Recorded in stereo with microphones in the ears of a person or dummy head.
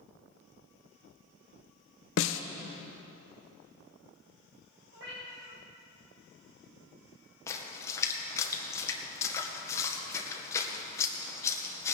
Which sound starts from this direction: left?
A snare drum, at 2.2 s.